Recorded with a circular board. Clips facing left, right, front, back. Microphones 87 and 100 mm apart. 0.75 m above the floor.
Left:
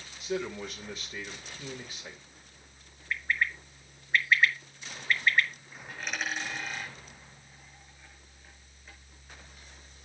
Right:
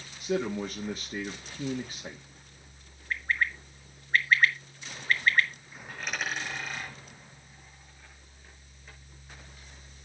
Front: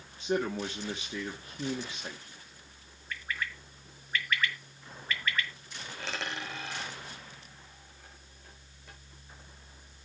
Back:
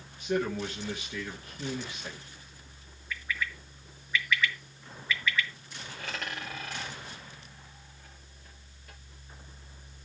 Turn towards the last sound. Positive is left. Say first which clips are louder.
# right 1 dB, front 1 dB
turn(degrees=-5)